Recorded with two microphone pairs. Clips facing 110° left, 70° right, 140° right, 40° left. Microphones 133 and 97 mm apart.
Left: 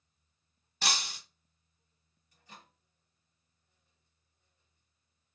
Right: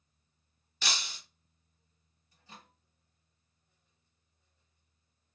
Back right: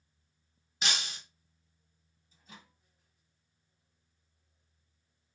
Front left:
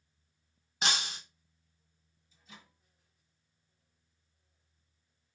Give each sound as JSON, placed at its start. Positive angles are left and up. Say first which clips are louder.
{"t": 0.8, "sound": "breaking glass", "louder": "left 3 dB, front left 3 dB", "azimuth_deg": 75, "distance_m": 1.0}
{"t": 2.3, "sound": "a microwave", "louder": "right 1 dB, back right 1 dB", "azimuth_deg": -120, "distance_m": 1.4}